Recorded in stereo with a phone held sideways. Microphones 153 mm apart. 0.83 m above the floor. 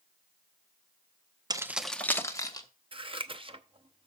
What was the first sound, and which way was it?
Keys jangling, 25° right (ahead or behind).